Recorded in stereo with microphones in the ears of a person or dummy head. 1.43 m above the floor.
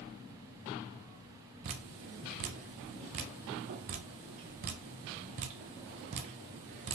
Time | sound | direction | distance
1.6 | dripping | 40° right (ahead or behind) | 0.6 m